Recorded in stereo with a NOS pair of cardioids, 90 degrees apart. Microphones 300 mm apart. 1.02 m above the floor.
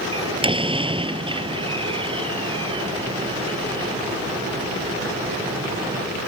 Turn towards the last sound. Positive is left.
turn(degrees=-15)